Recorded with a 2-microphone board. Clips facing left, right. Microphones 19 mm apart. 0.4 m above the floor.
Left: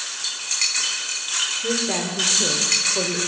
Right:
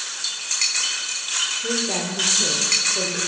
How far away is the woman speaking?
About 1.2 m.